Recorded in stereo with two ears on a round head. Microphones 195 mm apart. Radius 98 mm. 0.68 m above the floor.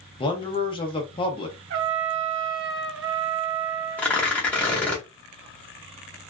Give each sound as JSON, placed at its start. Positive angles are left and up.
{"t": 0.2, "sound": "a man speaking", "side_deg": 25, "distance_m": 0.6}
{"t": 1.7, "sound": "a trumpet", "side_deg": -55, "distance_m": 0.7}
{"t": 4.0, "sound": "tearing paper", "side_deg": 5, "distance_m": 0.8}